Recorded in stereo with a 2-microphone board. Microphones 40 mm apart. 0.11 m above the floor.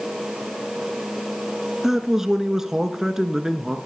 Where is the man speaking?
10° right (ahead or behind), 1.2 m.